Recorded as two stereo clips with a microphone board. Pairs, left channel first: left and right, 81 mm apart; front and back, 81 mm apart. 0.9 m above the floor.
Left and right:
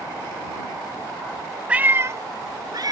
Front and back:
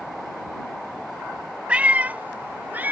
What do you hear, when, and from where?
1.7 s a cat meowing: 135° right; by 2.9 s 115° right